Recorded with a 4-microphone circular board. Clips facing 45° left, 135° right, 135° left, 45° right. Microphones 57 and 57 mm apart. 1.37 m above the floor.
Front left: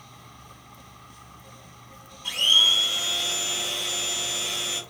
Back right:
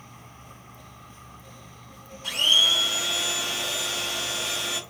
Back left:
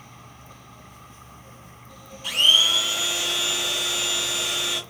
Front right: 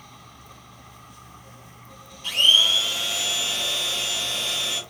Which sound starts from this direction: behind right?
A blender, at 2.2 s.